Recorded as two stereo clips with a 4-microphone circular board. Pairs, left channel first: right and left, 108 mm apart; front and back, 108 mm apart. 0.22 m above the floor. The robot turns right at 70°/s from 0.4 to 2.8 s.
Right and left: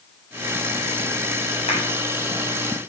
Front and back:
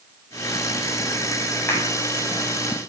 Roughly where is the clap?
Right.